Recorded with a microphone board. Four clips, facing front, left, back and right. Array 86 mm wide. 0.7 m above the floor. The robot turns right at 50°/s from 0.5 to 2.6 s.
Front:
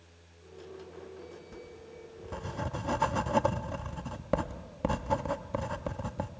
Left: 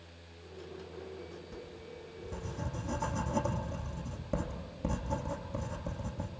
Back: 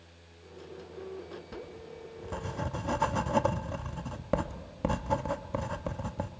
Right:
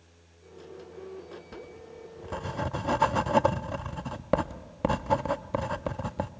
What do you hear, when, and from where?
1.5 s writing: 145° right, 0.6 m; by 6.3 s 90° right, 0.6 m